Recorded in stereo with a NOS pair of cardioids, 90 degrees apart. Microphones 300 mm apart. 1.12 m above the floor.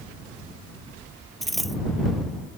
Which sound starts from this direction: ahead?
A dropped coin, at 1.4 s.